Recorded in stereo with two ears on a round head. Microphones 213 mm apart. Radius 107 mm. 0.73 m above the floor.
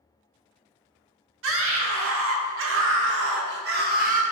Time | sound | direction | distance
1.4 | a scream | 60° right (ahead or behind) | 2.5 m